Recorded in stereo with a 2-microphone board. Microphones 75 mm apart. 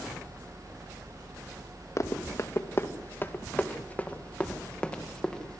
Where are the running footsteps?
45° left (ahead or behind), 2.5 m; by 5.6 s 10° left (ahead or behind), 4 m.